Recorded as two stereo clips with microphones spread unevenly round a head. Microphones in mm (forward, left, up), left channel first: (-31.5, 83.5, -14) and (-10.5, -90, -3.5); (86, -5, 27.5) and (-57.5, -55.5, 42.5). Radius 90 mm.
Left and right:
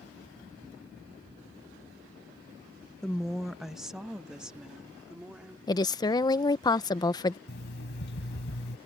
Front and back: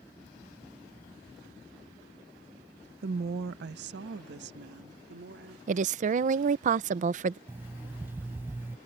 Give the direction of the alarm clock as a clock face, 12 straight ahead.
8 o'clock.